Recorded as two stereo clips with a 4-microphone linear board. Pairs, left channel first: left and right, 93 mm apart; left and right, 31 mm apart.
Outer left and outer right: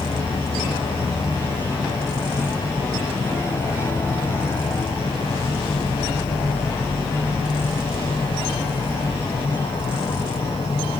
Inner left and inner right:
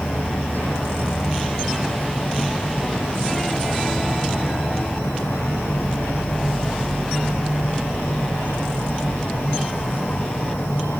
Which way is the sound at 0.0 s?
85° left.